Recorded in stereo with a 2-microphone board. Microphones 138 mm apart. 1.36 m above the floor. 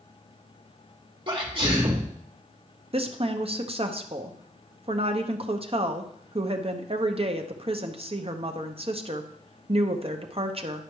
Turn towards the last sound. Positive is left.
turn(degrees=-45)  # may be behind; listen again after turning